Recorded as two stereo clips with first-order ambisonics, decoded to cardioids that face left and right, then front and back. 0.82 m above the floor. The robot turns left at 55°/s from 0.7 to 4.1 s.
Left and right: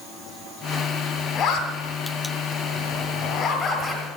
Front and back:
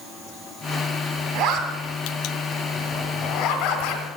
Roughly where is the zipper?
Behind.